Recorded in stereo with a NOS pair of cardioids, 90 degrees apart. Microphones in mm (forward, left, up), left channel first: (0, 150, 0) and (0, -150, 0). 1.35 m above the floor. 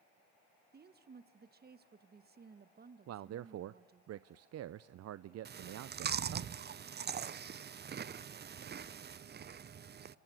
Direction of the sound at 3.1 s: 55° right.